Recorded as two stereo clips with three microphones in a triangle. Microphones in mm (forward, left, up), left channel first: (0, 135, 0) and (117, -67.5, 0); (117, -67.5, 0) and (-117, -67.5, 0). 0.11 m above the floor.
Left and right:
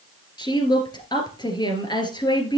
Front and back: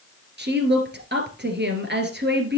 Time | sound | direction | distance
0.4 | a woman speaking | 175° right | 2 m